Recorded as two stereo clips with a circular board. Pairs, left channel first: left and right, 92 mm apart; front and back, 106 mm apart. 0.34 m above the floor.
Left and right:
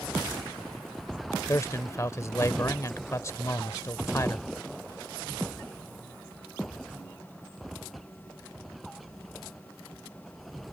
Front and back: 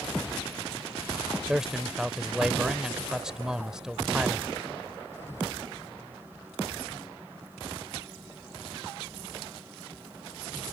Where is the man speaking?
100° left.